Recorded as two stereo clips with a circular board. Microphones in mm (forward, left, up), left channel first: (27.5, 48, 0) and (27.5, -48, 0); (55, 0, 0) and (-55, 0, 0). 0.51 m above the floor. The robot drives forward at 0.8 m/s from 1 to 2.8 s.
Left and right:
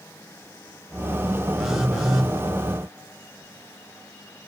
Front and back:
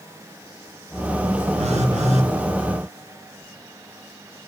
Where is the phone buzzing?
175° right, 0.6 m.